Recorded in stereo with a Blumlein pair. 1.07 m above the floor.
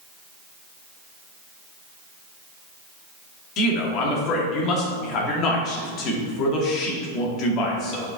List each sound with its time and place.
3.6 s a man speaking: 35° left, 2 m